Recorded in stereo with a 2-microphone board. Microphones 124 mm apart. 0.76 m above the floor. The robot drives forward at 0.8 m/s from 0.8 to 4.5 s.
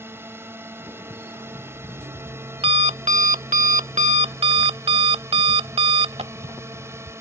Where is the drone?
20° right (ahead or behind).